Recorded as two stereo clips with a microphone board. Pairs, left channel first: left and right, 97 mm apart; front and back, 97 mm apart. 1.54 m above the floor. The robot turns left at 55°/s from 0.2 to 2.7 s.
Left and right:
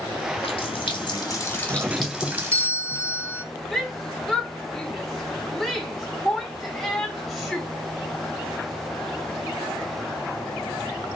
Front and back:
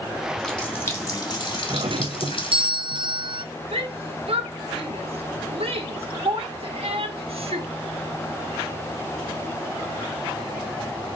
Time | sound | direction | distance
0.4 | a running tap | 90° left | 2.5 m
1.7 | a doorbell | 150° right | 0.6 m
3.7 | a shout | straight behind | 1.7 m